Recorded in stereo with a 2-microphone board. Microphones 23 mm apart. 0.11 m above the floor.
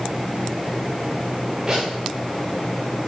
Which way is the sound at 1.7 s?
35° right (ahead or behind).